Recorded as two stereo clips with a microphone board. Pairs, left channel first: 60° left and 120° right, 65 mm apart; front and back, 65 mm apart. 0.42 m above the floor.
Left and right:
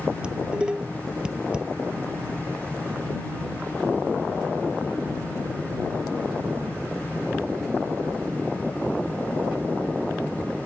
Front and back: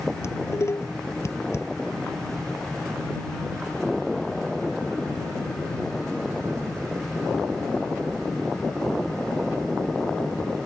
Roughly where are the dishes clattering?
Ahead right.